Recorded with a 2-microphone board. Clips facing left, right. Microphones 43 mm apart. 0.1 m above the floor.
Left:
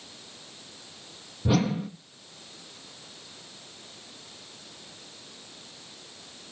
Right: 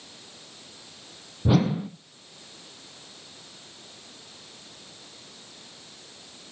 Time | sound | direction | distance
1.4 | a whoosh | 10° right (ahead or behind) | 0.8 m